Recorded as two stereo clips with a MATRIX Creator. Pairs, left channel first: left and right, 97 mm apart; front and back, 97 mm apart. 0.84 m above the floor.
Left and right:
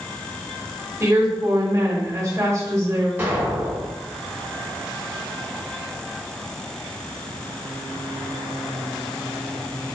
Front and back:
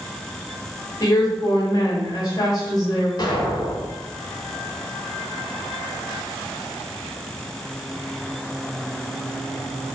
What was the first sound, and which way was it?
A woman speaking, 35° right.